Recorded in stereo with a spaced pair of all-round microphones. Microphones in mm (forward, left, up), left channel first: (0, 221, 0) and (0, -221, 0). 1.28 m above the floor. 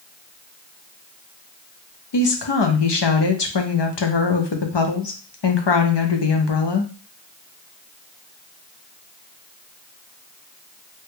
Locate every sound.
2.1 s a woman speaking: 70° left (ahead or behind), 0.7 m